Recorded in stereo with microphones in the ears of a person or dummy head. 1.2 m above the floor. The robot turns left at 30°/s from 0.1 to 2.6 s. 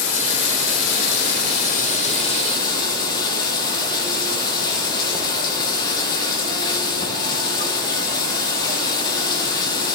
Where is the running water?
100° left, 1.2 m; by 9.9 s 25° left, 1.2 m.